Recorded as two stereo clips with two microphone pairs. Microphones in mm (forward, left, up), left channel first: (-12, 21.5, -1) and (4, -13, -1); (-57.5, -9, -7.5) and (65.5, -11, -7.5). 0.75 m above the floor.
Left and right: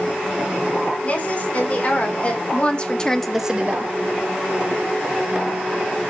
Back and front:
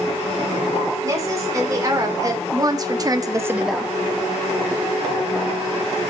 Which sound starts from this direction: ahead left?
A woman speaking, at 1.0 s.